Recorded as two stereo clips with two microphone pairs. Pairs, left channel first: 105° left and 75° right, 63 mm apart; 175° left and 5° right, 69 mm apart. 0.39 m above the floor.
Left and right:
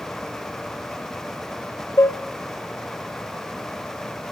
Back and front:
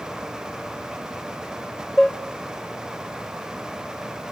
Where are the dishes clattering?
90° left, 1.1 m.